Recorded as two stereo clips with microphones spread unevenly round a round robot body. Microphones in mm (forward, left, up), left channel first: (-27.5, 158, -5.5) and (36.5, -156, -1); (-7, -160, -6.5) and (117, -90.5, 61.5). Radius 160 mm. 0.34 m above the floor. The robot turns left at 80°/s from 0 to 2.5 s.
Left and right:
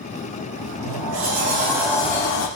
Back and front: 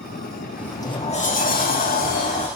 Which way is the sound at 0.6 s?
65° right.